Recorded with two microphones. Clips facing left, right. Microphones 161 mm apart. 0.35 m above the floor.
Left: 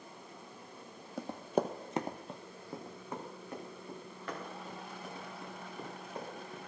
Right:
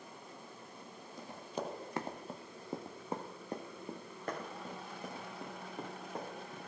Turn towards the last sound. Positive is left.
turn(degrees=-50)  # may be behind; listen again after turning